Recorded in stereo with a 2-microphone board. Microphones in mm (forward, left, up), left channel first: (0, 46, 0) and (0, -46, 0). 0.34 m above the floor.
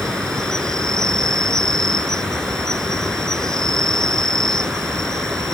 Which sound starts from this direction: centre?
An insect, at 0.0 s.